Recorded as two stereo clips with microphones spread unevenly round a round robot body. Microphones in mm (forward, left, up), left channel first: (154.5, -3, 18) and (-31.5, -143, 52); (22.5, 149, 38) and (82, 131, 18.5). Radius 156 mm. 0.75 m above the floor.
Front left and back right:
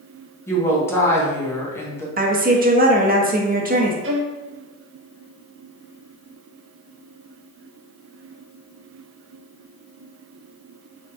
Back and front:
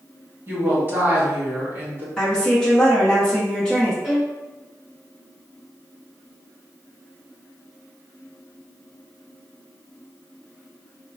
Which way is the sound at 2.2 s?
100° right.